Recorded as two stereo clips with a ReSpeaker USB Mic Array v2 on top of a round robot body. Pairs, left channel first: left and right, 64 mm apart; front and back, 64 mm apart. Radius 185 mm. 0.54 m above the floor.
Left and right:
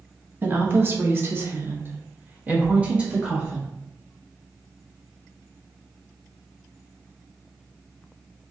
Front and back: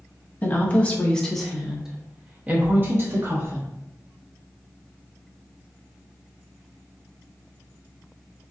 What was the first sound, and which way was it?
A woman speaking, 50° right.